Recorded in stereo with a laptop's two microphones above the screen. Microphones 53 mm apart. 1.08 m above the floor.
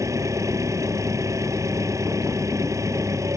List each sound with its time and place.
0.0 s an engine running: 75° right (ahead or behind)